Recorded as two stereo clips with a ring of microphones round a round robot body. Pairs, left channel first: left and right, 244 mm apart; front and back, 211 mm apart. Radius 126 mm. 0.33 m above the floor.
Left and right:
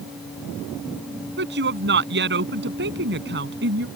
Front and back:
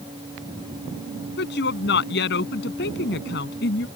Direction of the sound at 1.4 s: 45° right.